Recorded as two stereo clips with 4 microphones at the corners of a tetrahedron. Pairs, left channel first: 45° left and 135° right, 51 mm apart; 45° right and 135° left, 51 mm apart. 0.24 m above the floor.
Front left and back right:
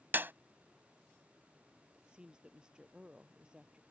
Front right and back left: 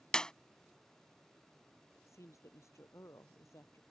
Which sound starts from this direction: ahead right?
A woman speaking, at 1.9 s.